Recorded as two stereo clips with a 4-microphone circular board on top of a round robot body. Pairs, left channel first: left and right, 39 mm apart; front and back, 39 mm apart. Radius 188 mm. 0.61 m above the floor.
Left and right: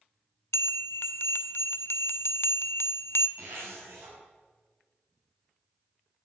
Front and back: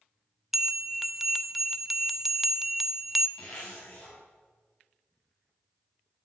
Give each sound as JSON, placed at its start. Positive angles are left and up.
{"t": 0.5, "sound": "a bell", "azimuth_deg": 95, "distance_m": 0.7}
{"t": 3.4, "sound": "a zipper", "azimuth_deg": -70, "distance_m": 5.5}